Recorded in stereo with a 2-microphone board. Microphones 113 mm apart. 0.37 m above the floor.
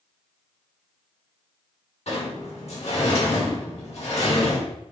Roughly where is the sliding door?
Left.